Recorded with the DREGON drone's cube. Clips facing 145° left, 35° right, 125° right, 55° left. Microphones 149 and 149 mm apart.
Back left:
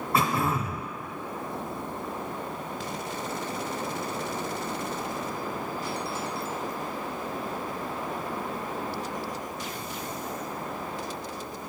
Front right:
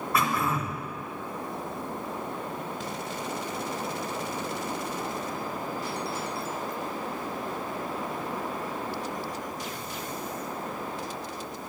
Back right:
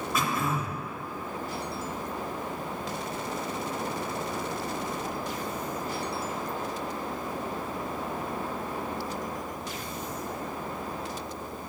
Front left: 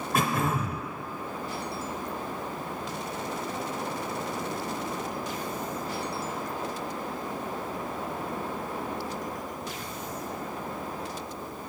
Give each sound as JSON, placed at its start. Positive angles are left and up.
{"t": 0.1, "sound": "throat clearing", "azimuth_deg": 85, "distance_m": 0.8}